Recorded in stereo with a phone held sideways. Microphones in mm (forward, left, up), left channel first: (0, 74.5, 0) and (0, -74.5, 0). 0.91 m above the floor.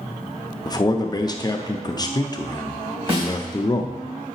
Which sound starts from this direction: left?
A man speaking, at 0.7 s.